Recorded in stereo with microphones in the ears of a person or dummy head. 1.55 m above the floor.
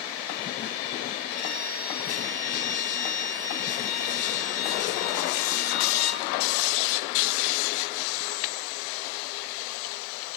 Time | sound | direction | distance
1.3 | a violin | 55° left (ahead or behind) | 6.5 m